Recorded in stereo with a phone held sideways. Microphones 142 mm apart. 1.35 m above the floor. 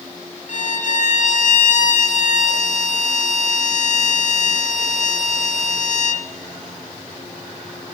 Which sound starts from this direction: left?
A violin, at 0.5 s.